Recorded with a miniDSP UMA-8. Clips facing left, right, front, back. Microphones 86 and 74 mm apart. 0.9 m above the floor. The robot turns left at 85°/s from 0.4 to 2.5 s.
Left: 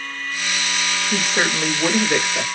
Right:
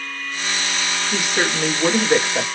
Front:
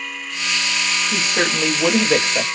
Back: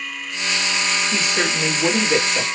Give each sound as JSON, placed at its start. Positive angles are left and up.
{"t": 1.1, "sound": "a woman speaking", "azimuth_deg": 60, "distance_m": 1.3}